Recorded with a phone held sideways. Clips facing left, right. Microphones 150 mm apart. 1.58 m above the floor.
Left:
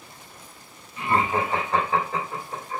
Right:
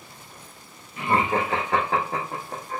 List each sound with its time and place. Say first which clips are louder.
1.0 s laughter: right 1 dB; 70° right (ahead or behind), 0.9 m; by 2.8 s 50° right (ahead or behind), 1.3 m